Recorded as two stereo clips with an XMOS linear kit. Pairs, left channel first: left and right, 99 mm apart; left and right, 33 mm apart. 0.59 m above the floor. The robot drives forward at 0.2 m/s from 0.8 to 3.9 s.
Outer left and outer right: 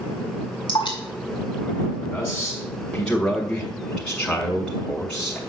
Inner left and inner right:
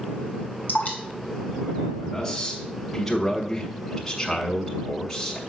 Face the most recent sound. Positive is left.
turn(degrees=15)  # may be behind; listen again after turning